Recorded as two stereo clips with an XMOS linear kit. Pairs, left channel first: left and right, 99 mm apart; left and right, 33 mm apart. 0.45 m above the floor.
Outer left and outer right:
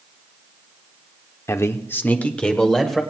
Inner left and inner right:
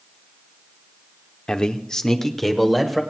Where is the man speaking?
30° left (ahead or behind), 0.9 m; by 3.0 s 5° left (ahead or behind), 1.6 m.